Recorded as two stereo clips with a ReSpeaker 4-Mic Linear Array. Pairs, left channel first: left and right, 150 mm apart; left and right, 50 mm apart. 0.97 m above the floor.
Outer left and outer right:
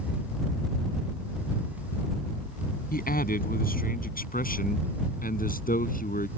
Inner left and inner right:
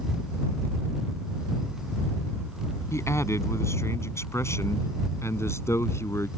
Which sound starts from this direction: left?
A man speaking, at 2.9 s.